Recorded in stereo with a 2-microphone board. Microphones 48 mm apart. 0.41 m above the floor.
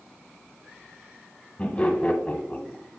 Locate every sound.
1.6 s laughter: 25° left (ahead or behind), 1.4 m